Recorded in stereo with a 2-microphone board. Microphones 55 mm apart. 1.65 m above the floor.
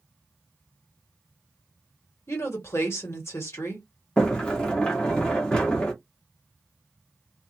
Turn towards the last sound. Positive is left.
turn(degrees=15)  # may be behind; listen again after turning